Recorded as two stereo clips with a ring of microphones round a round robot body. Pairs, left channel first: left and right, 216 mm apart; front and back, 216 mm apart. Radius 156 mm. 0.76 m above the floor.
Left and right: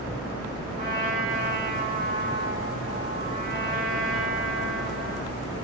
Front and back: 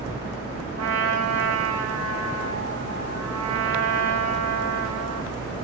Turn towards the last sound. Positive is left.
turn(degrees=-150)